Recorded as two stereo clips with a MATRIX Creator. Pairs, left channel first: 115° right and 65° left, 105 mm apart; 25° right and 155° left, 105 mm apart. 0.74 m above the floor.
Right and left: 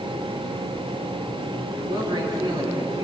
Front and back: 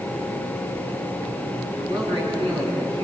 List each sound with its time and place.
1.7 s a man speaking: 115° left, 8 m